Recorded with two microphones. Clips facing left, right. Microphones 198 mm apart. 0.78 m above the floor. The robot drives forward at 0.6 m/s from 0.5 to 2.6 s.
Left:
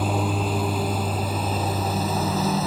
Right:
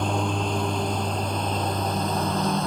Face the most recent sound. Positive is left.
turn(degrees=5)  # may be behind; listen again after turning